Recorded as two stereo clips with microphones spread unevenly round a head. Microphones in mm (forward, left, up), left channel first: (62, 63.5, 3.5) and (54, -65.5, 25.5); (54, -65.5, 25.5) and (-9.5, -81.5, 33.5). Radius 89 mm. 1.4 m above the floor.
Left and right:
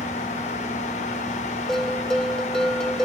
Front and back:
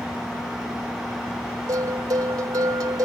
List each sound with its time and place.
1.7 s a bell: straight behind